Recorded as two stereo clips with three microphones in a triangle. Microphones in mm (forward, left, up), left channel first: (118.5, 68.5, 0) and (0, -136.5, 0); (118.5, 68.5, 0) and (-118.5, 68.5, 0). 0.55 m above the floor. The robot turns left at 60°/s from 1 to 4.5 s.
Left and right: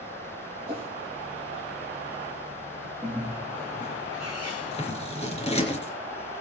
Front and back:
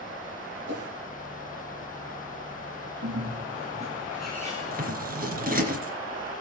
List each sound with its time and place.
0.7 s a whoosh: 170° left, 5 m
3.0 s a bird: 165° left, 8 m; by 4.8 s 75° left, 8 m
4.6 s scissors: 125° left, 3.5 m